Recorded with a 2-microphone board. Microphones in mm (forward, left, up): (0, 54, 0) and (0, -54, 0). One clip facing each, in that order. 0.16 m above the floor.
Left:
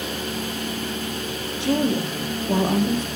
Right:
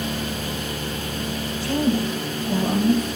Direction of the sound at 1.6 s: 75° left (ahead or behind).